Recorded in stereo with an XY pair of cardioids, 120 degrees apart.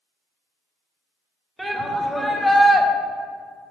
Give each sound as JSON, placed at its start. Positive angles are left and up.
{"t": 1.6, "sound": "a shout", "azimuth_deg": -15, "distance_m": 2.0}